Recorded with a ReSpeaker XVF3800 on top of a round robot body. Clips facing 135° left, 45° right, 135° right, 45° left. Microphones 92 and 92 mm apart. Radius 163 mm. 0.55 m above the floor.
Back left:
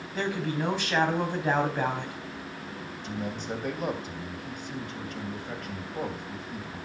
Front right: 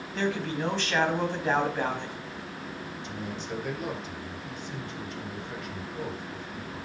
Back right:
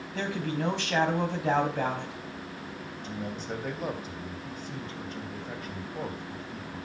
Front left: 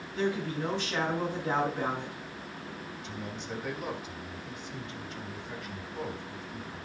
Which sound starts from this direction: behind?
A man speaking, at 3.0 s.